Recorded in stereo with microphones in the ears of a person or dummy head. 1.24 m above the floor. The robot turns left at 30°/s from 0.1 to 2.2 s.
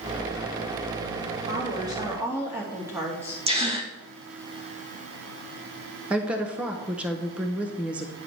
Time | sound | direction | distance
1.4 | a woman speaking | 30° right (ahead or behind) | 1.8 m
3.5 | a gasp | 25° right (ahead or behind) | 0.7 m
6.1 | a woman speaking | 10° right (ahead or behind) | 0.6 m